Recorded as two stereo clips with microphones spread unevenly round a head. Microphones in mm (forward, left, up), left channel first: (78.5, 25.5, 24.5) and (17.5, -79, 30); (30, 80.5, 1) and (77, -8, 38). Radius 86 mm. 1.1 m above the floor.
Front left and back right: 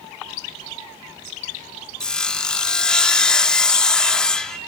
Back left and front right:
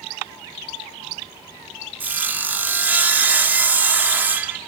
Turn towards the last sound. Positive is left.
turn(degrees=-25)